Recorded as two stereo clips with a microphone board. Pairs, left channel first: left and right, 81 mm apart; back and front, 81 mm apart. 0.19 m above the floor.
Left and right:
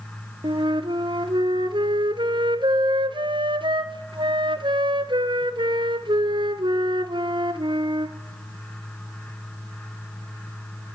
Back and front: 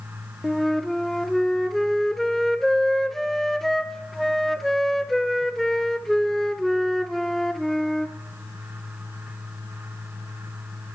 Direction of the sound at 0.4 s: 95° right.